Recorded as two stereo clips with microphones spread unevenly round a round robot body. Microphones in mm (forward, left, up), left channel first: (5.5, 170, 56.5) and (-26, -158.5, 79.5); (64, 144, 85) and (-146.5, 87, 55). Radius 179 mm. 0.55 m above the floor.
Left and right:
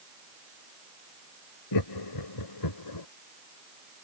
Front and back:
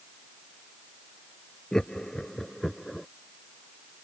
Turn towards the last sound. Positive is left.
turn(degrees=105)